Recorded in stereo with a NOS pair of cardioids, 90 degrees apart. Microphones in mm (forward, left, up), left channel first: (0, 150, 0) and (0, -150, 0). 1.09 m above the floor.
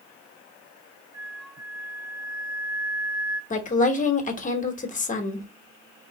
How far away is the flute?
About 0.9 m.